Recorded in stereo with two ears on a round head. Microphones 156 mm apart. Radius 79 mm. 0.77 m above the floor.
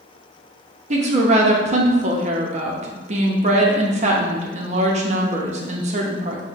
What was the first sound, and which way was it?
A woman speaking, 40° right (ahead or behind).